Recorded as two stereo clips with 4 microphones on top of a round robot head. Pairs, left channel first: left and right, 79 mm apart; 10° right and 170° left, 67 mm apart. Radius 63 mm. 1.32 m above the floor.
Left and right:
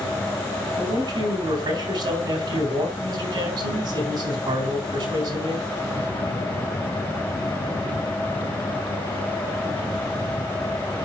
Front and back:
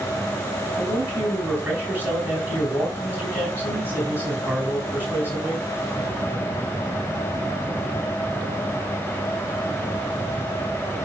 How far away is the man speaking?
About 3.5 m.